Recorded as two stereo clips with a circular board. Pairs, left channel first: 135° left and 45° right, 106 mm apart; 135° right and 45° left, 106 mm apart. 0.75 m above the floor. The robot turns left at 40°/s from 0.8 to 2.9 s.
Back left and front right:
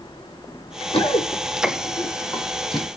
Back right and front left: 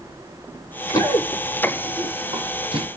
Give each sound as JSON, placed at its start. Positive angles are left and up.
{"t": 0.9, "sound": "running footsteps", "azimuth_deg": 165, "distance_m": 2.5}